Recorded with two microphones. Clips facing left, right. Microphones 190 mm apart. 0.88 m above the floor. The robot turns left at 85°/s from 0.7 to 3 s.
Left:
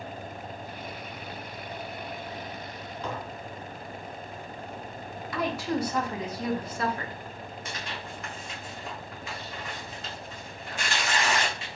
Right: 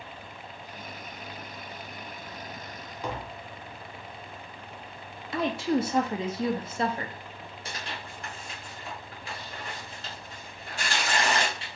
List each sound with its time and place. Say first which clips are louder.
3.0 s tapping: right 1 dB; 15° right (ahead or behind), 0.6 m
5.3 s a woman speaking: right 3 dB; 25° right (ahead or behind), 0.6 m
7.7 s tearing paper: right 1 dB; 35° right (ahead or behind), 1.3 m